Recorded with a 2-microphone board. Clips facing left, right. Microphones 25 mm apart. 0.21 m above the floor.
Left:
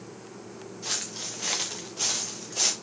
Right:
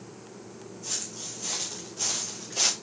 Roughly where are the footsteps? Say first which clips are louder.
Left 4 dB; left.